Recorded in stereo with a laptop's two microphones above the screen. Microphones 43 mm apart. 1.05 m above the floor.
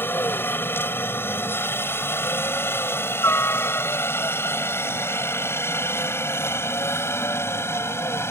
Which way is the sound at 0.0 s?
55° left (ahead or behind).